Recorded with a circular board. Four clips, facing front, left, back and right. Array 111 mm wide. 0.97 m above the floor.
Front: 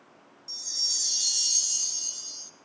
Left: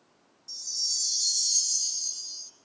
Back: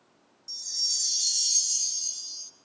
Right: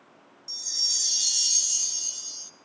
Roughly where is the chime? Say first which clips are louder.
Right 3 dB, front 4 dB; right.